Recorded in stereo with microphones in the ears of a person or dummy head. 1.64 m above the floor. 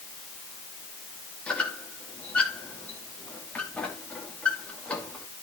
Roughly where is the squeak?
Centre.